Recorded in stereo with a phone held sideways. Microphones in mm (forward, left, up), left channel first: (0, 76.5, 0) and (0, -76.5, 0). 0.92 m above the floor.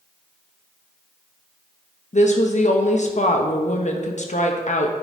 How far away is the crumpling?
No crumpling in this recording.